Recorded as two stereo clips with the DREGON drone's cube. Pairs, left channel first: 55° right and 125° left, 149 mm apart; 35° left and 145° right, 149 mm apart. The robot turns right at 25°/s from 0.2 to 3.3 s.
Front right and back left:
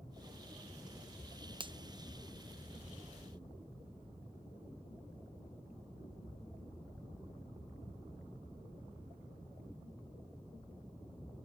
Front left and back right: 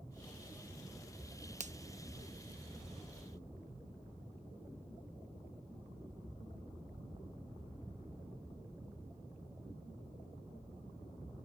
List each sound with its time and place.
1.6 s a finger snap: straight behind